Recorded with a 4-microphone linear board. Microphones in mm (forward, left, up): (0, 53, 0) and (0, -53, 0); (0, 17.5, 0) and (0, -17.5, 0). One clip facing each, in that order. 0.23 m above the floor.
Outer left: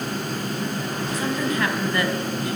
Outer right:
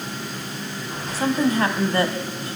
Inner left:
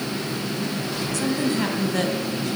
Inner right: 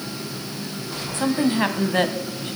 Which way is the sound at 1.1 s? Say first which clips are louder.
Outer right 5 dB, inner right 4 dB; 35° right (ahead or behind).